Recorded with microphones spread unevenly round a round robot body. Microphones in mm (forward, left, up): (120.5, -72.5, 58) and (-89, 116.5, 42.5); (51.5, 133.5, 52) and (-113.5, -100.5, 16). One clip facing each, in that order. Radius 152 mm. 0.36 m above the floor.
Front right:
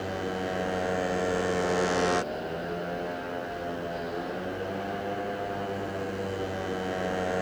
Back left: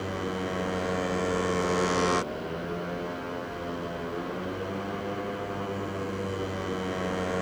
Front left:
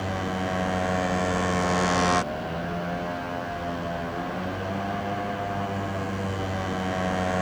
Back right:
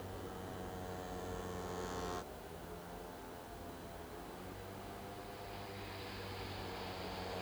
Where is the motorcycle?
55° left.